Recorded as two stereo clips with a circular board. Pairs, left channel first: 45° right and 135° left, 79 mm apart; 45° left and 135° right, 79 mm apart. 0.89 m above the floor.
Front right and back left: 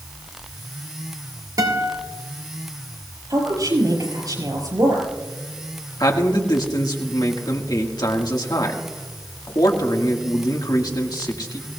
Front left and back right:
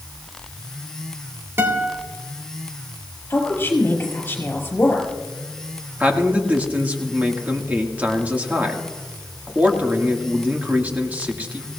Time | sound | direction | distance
1.6 | a guitar | 165° left | 2.5 m
3.3 | a woman speaking | 105° left | 5.5 m
6.0 | a man speaking | 65° right | 1.8 m